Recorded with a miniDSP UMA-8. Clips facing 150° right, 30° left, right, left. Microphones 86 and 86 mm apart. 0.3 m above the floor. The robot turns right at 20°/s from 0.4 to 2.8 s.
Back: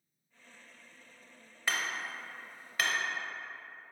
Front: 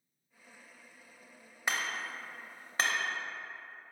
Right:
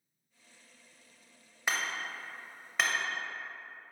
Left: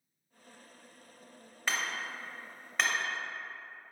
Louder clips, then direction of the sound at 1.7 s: Even, right 1 dB; 25° right.